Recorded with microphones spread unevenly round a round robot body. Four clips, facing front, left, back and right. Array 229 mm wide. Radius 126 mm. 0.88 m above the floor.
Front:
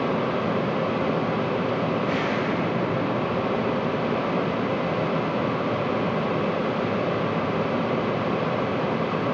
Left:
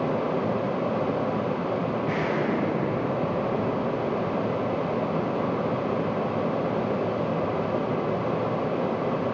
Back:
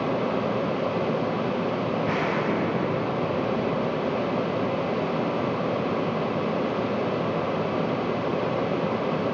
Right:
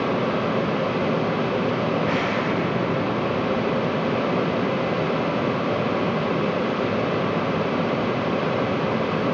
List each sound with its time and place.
2.0 s an explosion: 125° right, 6 m